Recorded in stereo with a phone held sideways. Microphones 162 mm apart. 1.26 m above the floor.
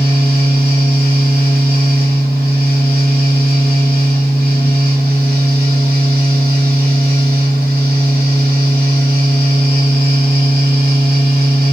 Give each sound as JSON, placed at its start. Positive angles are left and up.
{"t": 0.0, "sound": "a fan", "side_deg": -80, "distance_m": 1.5}